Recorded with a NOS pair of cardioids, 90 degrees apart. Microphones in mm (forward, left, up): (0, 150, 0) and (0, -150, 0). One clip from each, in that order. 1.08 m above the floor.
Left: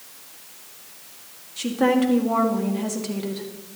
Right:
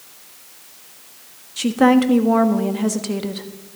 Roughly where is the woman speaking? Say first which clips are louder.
Right 5 dB; ahead right.